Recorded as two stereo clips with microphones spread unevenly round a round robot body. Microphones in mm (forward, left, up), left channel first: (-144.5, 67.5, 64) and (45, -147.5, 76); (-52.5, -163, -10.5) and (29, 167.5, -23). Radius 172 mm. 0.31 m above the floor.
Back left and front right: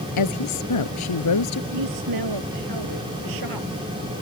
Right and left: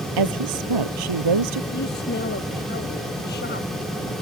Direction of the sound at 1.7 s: 40° right.